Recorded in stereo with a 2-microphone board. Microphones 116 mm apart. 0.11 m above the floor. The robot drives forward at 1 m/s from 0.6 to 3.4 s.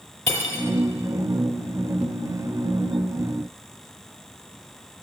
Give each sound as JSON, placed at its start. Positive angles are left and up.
{"t": 0.3, "sound": "cutlery clinking", "side_deg": 25, "distance_m": 1.3}